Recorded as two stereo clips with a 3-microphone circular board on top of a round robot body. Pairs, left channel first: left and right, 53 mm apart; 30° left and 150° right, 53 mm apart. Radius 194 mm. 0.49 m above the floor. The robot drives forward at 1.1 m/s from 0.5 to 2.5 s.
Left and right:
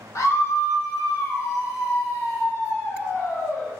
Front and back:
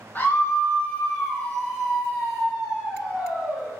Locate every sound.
0.1 s a scream: 85° left, 3 m; by 3.7 s 125° left, 3.5 m